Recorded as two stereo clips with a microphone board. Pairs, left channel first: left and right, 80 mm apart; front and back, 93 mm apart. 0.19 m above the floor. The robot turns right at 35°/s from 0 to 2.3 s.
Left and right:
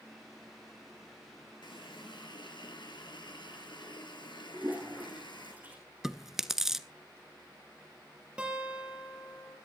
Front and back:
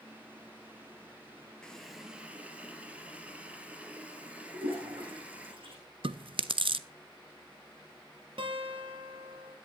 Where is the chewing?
175° right, 0.6 m.